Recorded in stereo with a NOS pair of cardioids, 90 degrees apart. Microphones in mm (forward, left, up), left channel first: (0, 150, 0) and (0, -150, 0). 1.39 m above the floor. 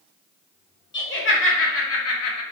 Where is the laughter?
40° left, 1.3 m; by 2.4 s 70° left, 0.6 m.